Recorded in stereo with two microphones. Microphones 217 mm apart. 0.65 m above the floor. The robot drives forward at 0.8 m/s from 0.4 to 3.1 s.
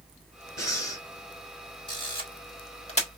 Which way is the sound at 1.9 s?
20° left (ahead or behind).